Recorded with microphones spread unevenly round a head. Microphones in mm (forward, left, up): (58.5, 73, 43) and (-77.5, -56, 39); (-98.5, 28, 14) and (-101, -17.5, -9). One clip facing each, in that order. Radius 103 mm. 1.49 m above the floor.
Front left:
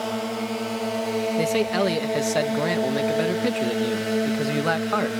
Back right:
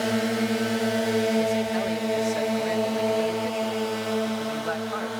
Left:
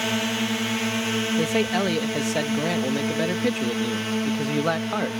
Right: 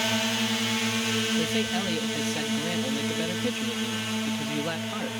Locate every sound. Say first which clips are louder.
0.0 s a drone: back right 3 dB, left 2 dB; 175° left; by 5.2 s 20° left
1.4 s a man speaking: front left 2 dB, left 5 dB; 60° left